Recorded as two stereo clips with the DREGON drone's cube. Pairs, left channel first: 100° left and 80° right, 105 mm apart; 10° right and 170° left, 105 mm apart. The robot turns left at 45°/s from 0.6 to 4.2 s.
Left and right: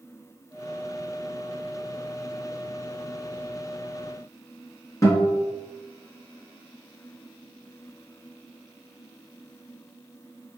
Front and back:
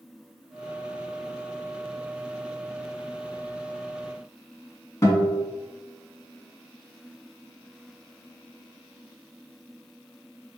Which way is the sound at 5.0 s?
45° left.